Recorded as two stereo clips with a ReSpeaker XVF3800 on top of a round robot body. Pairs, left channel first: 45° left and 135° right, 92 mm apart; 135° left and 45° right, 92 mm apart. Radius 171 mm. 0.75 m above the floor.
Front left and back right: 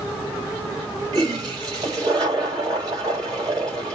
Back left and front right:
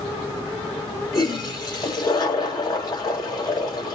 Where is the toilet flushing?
Straight behind, 4 m.